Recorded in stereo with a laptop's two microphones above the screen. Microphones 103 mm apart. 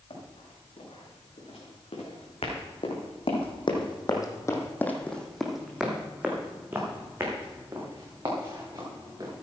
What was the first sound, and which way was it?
Running footsteps, 70° left (ahead or behind).